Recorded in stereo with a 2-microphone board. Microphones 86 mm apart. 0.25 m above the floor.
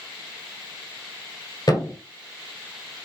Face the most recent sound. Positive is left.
turn(degrees=55)  # may be behind; listen again after turning